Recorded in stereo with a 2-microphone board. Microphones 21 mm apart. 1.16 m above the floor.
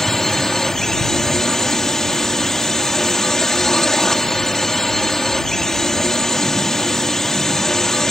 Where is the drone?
25° left (ahead or behind).